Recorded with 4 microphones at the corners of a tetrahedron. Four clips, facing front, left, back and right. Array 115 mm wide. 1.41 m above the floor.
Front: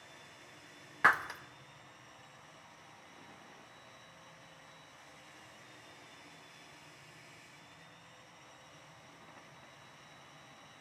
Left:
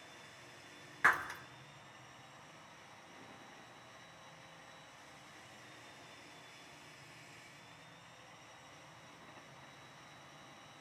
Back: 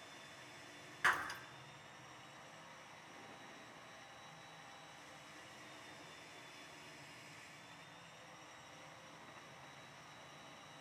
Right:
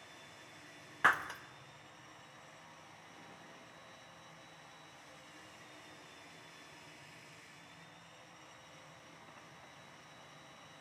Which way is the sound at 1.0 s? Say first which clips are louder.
Right 1 dB, front 8 dB; 25° right.